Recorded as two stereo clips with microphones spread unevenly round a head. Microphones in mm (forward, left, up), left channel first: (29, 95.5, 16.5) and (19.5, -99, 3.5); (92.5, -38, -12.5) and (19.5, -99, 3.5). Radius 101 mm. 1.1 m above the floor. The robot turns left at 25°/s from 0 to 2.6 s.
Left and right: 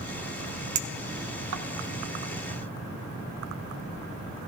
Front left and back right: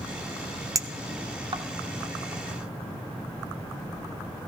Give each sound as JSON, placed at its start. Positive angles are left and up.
{"t": 0.8, "sound": "a clink", "azimuth_deg": -85, "distance_m": 1.4}